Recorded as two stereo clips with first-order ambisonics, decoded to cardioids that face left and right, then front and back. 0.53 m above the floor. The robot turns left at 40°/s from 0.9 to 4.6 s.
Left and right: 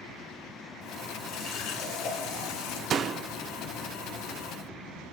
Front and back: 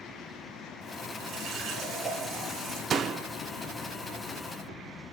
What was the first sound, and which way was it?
A running tap, 140° left.